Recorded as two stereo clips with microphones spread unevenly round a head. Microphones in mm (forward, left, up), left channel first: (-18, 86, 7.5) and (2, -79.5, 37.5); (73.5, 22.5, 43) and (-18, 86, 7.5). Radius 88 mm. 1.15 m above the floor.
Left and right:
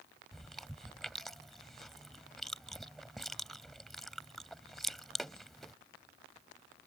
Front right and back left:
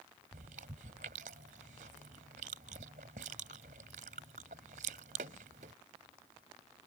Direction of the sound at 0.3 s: 170° right.